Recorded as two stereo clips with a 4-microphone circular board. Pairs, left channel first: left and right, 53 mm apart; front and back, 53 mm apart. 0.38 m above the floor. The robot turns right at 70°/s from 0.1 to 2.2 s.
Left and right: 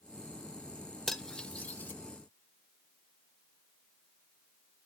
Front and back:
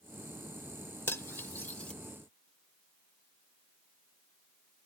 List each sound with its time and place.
1.1 s cutlery clinking: 5° left, 0.7 m; by 1.9 s 65° left, 0.7 m